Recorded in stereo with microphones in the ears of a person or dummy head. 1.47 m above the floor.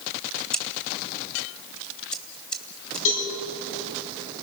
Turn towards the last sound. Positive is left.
turn(degrees=75)  # may be behind; listen again after turning